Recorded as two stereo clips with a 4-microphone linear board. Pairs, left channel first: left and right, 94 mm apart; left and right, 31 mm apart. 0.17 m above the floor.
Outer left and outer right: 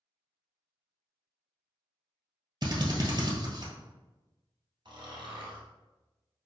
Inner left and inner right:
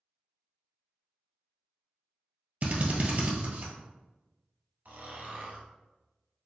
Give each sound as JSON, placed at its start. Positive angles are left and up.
{"t": 2.6, "sound": "a drill", "side_deg": -50, "distance_m": 1.5}
{"t": 4.8, "sound": "snoring", "side_deg": -60, "distance_m": 1.5}